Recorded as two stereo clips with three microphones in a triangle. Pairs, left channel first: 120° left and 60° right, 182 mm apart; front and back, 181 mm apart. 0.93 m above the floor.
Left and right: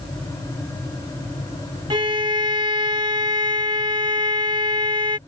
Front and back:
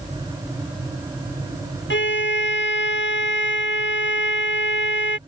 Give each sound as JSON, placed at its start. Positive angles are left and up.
{"t": 1.9, "sound": "a violin", "azimuth_deg": 5}